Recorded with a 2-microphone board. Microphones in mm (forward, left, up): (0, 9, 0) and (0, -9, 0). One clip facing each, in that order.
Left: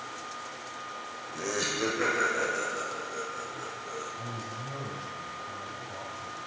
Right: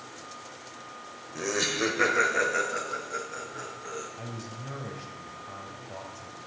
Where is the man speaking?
25° right (ahead or behind), 1.8 m.